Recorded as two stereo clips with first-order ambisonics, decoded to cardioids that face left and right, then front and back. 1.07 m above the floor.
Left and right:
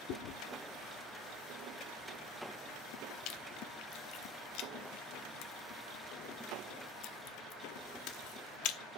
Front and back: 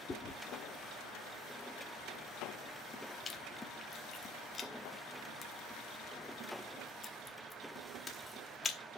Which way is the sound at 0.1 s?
70° left.